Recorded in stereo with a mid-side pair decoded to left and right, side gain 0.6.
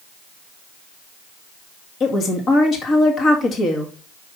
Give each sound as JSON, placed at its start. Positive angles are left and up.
{"t": 2.0, "sound": "a woman speaking", "azimuth_deg": 45, "distance_m": 1.9}